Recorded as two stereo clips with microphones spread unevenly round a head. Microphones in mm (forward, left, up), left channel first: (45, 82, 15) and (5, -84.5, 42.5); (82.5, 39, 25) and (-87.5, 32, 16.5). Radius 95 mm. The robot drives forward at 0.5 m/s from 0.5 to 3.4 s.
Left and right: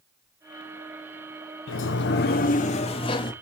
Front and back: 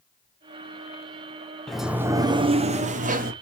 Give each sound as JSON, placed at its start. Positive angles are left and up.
{"t": 1.7, "sound": "a sliding door", "azimuth_deg": 90, "distance_m": 0.6}